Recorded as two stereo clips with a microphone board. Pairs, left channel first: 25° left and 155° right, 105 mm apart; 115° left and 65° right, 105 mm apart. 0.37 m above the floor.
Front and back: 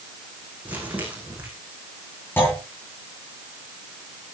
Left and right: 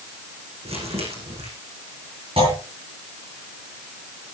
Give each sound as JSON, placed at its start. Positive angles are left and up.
{"t": 0.7, "sound": "crumpling", "azimuth_deg": -80, "distance_m": 8.0}
{"t": 2.4, "sound": "a clunk", "azimuth_deg": -45, "distance_m": 9.5}